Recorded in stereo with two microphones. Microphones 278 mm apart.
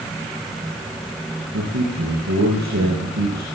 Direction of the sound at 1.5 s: 75° right (ahead or behind).